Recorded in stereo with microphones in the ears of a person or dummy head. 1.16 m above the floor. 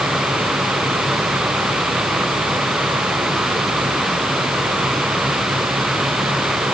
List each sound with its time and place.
Only background noise.